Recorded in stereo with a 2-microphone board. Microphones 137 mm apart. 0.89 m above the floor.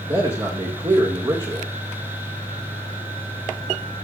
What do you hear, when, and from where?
0.1 s a man speaking: 35° right (ahead or behind), 2 m